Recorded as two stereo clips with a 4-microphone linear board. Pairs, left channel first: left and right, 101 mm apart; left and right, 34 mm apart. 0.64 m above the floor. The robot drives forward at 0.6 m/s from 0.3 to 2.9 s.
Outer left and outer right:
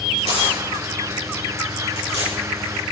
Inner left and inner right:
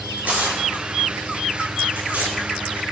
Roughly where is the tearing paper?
Right.